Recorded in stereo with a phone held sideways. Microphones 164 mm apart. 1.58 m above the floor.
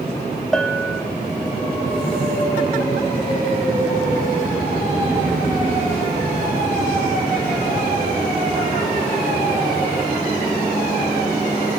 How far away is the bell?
About 0.6 m.